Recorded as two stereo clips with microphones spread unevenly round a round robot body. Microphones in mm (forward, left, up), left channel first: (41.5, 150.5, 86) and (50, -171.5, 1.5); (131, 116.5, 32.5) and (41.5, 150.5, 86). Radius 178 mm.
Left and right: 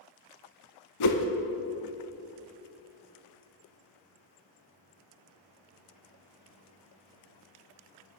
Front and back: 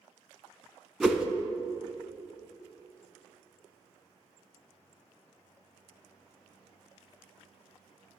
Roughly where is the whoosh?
Left.